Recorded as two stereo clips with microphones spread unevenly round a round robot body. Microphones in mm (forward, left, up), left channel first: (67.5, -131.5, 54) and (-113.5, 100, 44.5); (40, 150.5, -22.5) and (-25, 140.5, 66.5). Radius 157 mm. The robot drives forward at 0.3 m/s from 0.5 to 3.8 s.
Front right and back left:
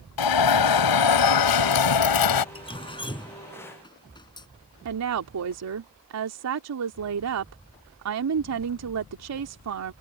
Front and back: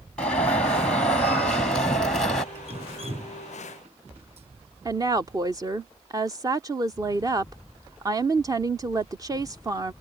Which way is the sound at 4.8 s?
105° left.